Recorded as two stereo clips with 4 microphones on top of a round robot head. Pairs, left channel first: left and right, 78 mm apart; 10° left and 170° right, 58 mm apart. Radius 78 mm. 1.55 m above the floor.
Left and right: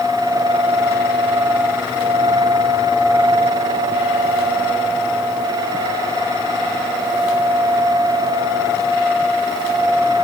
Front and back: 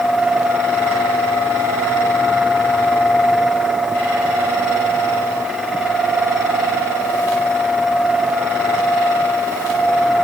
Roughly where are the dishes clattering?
No dishes clattering in this recording.